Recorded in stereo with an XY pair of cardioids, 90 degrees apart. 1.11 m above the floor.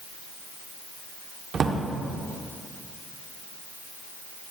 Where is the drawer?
55° right, 1.7 m.